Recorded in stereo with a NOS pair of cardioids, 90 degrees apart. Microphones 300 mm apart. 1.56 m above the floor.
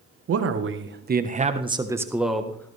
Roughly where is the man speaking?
Ahead right.